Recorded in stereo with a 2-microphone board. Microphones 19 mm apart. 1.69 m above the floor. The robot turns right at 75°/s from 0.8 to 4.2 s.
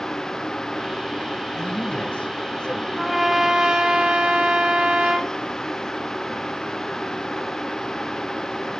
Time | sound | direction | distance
1.6 | a man speaking | 40° left | 2 m
3.0 | a trumpet | 170° right | 5 m